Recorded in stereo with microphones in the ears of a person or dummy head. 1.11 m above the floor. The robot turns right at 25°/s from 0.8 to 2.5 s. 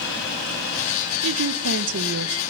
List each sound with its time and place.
1.2 s a woman speaking: 80° right, 0.8 m; by 2.4 s 55° right (ahead or behind), 0.8 m